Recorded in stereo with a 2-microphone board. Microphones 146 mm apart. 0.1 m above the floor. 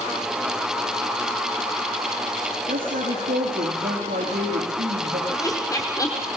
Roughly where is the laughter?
Left.